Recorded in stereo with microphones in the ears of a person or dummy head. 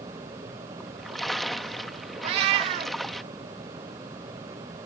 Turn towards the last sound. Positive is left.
turn(degrees=-30)  # may be behind; listen again after turning